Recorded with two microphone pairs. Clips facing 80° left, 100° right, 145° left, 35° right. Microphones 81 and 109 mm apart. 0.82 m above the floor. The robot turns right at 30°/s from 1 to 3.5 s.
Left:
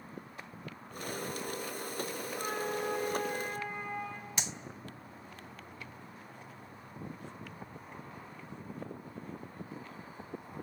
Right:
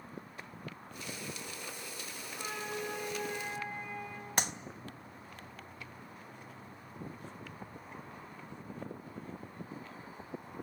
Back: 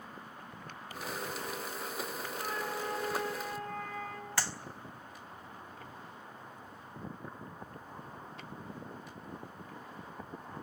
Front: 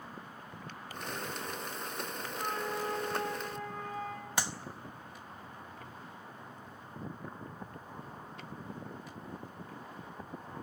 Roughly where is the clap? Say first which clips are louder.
Right 8 dB, front 1 dB; right.